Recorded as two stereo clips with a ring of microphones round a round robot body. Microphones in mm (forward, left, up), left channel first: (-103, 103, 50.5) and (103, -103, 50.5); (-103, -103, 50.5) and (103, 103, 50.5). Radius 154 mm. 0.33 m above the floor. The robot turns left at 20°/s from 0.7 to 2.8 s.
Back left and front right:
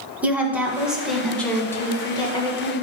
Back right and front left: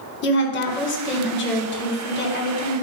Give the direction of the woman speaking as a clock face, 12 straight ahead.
4 o'clock.